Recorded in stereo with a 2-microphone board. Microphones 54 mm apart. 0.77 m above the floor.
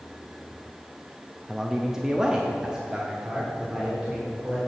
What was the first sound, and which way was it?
A man speaking, 5° right (ahead or behind).